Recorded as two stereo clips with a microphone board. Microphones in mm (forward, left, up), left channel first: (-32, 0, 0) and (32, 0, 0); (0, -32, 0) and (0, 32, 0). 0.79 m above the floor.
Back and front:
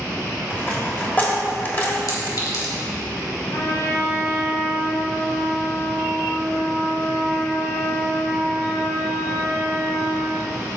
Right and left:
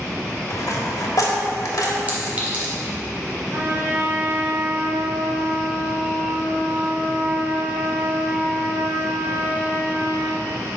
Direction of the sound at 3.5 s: 145° left.